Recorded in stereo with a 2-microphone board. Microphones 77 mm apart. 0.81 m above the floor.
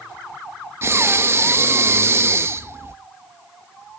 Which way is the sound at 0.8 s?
30° right (ahead or behind).